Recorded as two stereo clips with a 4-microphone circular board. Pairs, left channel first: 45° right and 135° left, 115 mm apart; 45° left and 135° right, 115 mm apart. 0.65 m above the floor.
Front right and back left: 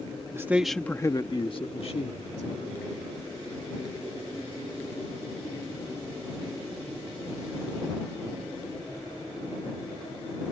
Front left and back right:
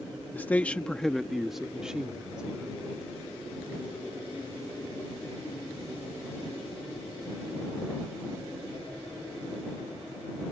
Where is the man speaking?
100° left; by 2.8 s 55° right.